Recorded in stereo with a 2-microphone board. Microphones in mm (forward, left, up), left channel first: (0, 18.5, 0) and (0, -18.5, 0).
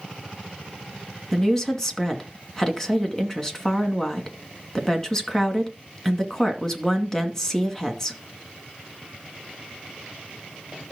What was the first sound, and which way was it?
A woman speaking, 10° left (ahead or behind).